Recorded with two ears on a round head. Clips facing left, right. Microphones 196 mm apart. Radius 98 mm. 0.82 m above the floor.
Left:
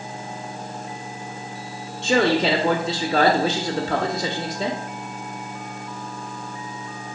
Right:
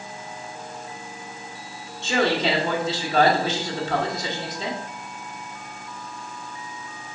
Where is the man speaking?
50° left (ahead or behind), 1.2 m.